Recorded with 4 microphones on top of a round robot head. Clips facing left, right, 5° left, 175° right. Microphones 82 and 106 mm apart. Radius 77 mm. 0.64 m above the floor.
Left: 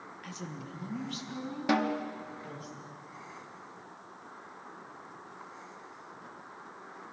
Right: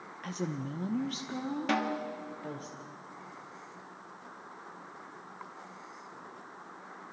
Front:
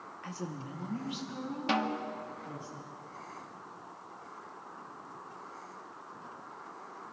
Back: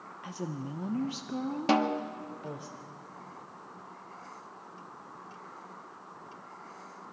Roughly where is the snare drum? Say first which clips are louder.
Left 4 dB, back 5 dB; behind.